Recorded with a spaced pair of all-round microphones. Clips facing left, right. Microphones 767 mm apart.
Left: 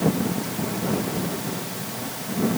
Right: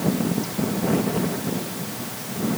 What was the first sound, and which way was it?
Only background noise.